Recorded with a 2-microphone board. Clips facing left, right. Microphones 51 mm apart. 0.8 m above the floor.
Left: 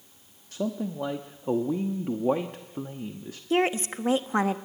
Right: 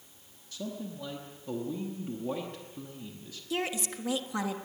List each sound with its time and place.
0.5 s a man speaking: 50° left (ahead or behind), 0.9 m
3.5 s a woman speaking: 40° left (ahead or behind), 1.0 m